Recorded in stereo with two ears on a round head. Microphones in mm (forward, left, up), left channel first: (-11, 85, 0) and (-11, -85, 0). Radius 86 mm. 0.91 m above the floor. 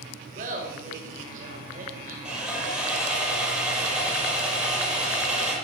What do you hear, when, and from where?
0.3 s laughter: 40° right (ahead or behind), 4 m
2.2 s sawing: 5° right (ahead or behind), 6.5 m